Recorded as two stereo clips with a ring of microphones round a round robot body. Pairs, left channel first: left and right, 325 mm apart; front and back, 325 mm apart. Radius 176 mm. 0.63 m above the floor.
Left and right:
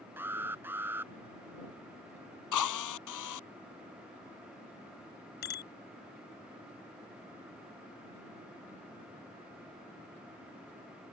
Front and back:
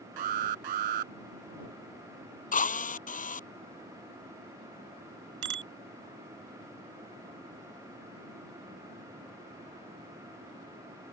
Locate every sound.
0.2 s an alarm: 175° right
2.5 s a drill: 65° left
5.4 s a bicycle bell: 155° left